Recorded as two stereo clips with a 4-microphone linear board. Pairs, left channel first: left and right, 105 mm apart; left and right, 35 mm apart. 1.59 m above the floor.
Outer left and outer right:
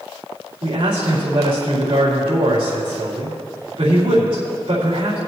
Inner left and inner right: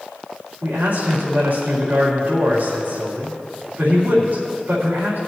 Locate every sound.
0.6 s a man speaking: 85° right, 3.5 m